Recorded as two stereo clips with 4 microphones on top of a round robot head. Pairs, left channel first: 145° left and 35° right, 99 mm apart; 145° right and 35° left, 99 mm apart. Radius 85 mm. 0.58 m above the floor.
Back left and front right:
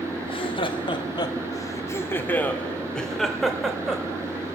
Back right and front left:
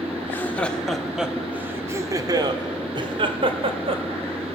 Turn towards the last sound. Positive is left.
turn(degrees=50)